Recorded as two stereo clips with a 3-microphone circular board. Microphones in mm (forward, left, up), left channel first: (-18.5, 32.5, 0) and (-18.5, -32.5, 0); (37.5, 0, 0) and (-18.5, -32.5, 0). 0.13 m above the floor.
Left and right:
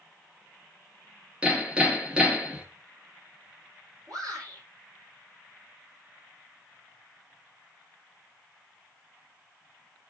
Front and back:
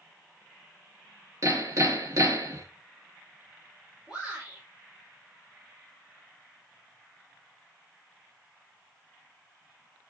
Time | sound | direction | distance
1.4 | hammering | 160° right | 2 m
4.1 | a shout | 70° right | 5.5 m